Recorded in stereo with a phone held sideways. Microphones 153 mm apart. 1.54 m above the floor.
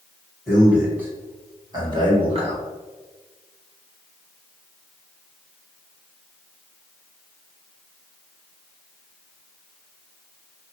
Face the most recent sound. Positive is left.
turn(degrees=-45)  # may be behind; listen again after turning